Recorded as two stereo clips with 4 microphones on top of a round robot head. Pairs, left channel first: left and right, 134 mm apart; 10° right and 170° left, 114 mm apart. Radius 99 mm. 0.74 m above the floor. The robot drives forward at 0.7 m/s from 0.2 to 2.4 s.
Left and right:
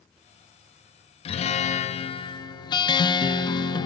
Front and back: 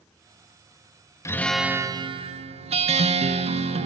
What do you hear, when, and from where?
1.2 s a guitar: 55° left, 0.6 m; by 3.9 s 145° left, 0.7 m